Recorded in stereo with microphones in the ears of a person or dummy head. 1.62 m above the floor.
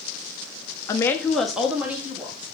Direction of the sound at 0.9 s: 20° left (ahead or behind).